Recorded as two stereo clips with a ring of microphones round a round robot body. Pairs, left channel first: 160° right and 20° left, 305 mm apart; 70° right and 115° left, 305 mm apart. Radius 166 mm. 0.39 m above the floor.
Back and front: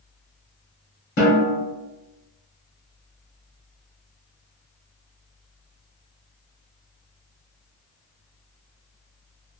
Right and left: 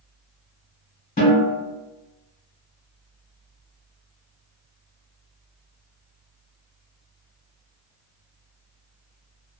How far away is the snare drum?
About 1.7 m.